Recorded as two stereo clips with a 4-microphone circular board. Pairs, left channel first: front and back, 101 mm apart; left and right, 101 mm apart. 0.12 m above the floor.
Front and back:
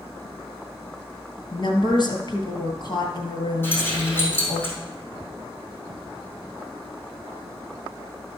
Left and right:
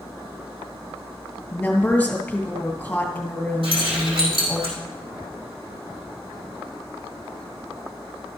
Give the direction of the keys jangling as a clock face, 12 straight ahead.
2 o'clock.